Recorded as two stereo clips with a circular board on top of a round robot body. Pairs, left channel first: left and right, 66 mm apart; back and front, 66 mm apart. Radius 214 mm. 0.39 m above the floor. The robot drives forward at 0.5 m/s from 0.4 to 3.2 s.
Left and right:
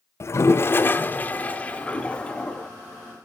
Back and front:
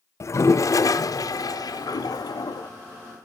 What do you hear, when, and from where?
0.2 s a toilet flushing: 140° left, 0.6 m; by 2.7 s 165° left, 1.7 m